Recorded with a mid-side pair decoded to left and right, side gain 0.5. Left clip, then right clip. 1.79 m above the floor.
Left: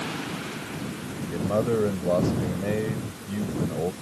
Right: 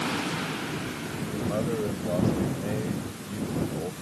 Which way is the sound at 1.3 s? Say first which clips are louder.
Left 6 dB; 40° left.